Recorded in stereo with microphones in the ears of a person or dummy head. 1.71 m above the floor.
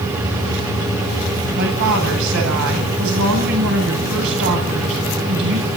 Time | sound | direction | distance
1.6 | a woman speaking | 70° right (ahead or behind) | 9 m